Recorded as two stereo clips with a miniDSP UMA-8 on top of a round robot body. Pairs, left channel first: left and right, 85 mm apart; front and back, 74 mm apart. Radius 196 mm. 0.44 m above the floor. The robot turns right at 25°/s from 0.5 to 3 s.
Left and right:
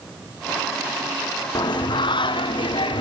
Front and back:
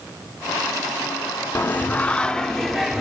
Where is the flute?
I don't hear a flute.